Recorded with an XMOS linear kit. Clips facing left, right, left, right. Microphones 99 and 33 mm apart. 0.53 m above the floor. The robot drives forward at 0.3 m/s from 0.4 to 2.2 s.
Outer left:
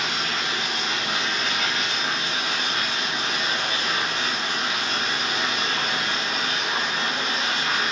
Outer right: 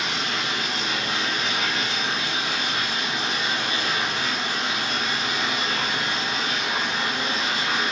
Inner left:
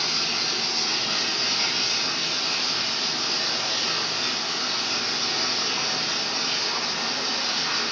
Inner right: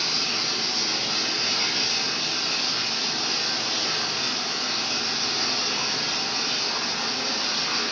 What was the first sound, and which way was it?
Running water, 55° left (ahead or behind).